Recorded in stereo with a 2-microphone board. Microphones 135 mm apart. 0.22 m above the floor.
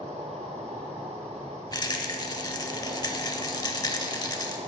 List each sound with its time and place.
0.0 s an insect: 50° right (ahead or behind), 1.9 m
1.7 s a rattle: 30° left (ahead or behind), 0.6 m